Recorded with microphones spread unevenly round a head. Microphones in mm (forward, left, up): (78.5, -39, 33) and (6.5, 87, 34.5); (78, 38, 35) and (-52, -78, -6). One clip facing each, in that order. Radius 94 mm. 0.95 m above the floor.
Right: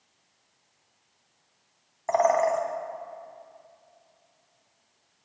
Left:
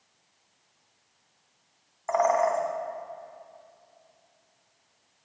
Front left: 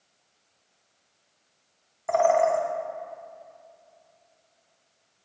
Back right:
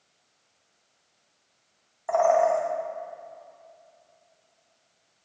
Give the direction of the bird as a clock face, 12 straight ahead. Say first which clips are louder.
Right 1 dB, even; 12 o'clock.